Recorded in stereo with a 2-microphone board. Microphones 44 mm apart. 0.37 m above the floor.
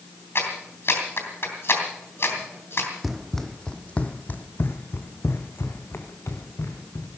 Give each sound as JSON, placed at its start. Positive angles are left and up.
{"t": 0.3, "sound": "a clap", "side_deg": 65, "distance_m": 3.0}
{"t": 3.0, "sound": "running footsteps", "side_deg": -5, "distance_m": 1.0}